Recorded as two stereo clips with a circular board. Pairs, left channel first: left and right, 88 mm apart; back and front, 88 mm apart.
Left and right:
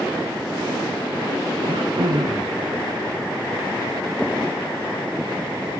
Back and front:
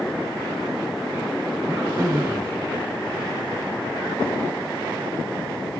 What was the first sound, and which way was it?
Throat clearing, 60° right.